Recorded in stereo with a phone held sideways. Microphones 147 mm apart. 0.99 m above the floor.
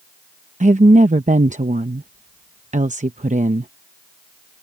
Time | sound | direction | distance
0.6 | a woman speaking | 55° right (ahead or behind) | ?